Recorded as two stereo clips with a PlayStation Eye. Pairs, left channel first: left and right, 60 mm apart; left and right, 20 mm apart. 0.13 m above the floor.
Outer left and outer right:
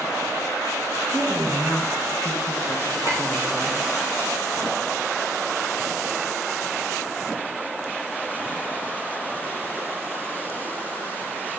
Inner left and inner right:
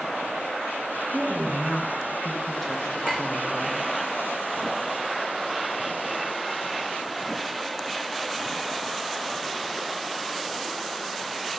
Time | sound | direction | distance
1.1 | a woman speaking | 20° left (ahead or behind) | 1.5 m
3.0 | a clink | 70° left (ahead or behind) | 6 m